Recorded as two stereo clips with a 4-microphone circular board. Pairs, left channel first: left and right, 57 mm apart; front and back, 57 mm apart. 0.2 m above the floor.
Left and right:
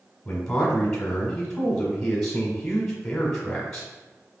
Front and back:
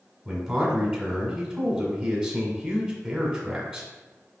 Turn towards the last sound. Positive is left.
turn(degrees=160)